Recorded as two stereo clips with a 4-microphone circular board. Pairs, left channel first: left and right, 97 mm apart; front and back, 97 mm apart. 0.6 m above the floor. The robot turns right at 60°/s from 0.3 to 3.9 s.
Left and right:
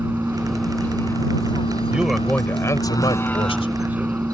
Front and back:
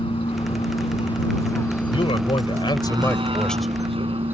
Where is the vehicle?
20° right; by 4.3 s 165° right.